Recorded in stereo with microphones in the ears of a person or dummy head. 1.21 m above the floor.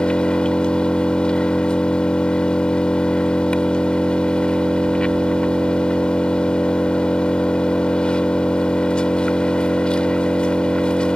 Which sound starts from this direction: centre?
An engine running, at 0.0 s.